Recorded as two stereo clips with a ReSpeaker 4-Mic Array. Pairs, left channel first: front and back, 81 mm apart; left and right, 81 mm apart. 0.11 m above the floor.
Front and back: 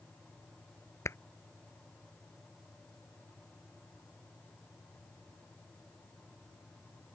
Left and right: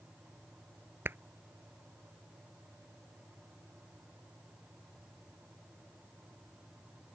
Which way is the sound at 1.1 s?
40° right.